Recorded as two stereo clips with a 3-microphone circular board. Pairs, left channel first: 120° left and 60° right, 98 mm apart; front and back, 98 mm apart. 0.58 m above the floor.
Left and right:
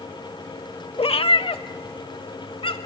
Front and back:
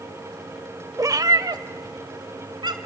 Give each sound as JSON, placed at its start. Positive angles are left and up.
{"t": 1.0, "sound": "a cat meowing", "azimuth_deg": 130, "distance_m": 0.5}